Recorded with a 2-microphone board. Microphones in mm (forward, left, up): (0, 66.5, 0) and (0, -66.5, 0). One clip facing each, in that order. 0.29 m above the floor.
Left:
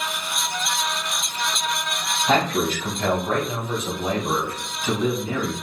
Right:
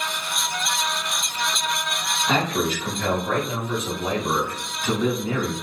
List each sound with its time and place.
2.3 s a man speaking: 50° left (ahead or behind), 1.4 m; by 5.5 s 5° left (ahead or behind), 1.6 m